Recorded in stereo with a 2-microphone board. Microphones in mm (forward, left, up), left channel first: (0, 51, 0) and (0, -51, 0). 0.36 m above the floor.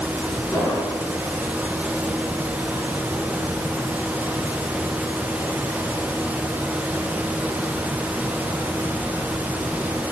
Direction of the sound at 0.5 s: 20° left (ahead or behind).